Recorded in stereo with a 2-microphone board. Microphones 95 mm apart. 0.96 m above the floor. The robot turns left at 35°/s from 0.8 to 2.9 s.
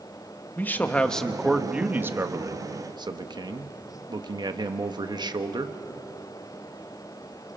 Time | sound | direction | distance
0.6 | a man speaking | 20° left | 1.2 m